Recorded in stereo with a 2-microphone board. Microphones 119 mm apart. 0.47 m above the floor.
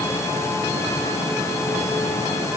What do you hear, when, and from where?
Only background noise.